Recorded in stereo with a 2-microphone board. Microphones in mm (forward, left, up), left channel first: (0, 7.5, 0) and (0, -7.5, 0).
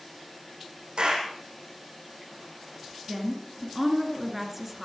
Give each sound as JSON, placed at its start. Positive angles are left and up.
{"t": 1.0, "sound": "a clap", "side_deg": -75, "distance_m": 6.5}
{"t": 3.1, "sound": "a woman speaking", "side_deg": -15, "distance_m": 2.5}